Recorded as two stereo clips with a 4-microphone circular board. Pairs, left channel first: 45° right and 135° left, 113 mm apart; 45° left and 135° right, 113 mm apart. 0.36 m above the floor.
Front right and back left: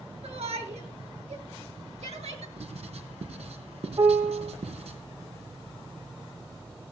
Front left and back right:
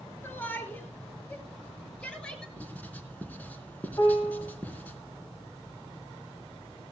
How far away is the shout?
About 7 m.